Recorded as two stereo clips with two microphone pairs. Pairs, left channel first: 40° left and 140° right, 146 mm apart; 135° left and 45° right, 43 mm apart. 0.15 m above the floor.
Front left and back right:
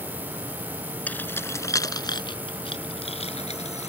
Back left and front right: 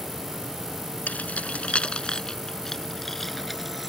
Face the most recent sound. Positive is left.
turn(degrees=40)